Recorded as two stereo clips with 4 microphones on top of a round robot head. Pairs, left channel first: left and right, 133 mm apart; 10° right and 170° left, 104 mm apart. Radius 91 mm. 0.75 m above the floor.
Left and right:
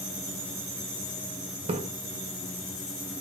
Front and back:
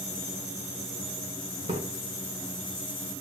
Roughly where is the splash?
Behind right.